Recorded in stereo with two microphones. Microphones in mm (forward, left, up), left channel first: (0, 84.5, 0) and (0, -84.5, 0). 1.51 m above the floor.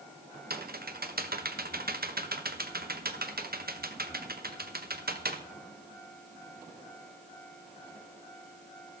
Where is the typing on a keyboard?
65° right (ahead or behind), 1.1 m.